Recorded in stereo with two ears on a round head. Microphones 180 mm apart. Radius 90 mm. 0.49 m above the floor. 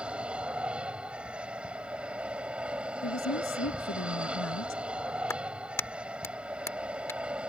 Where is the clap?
15° left (ahead or behind).